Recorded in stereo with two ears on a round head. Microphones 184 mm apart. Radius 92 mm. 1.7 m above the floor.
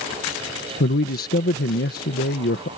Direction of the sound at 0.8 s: 50° left (ahead or behind).